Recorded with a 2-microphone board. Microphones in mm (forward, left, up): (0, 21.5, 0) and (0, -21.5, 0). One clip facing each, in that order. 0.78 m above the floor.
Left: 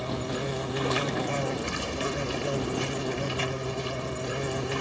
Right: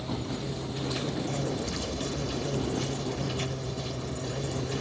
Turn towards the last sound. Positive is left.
turn(degrees=65)  # may be behind; listen again after turning